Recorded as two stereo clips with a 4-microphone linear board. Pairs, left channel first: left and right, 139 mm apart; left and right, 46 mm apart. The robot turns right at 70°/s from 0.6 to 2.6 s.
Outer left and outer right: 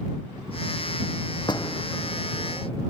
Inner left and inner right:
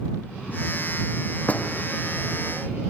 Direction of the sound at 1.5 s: 35° left (ahead or behind).